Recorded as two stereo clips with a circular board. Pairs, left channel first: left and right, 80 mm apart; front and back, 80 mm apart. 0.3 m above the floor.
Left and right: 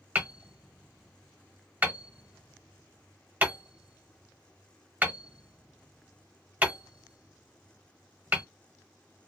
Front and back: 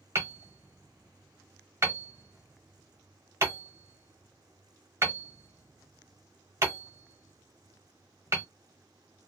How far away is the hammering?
About 1.1 m.